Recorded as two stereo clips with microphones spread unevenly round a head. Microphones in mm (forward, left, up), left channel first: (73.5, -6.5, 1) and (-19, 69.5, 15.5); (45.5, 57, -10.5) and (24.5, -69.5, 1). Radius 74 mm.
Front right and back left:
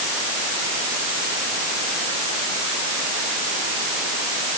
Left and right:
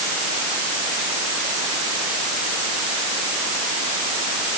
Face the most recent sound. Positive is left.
No sound to turn to.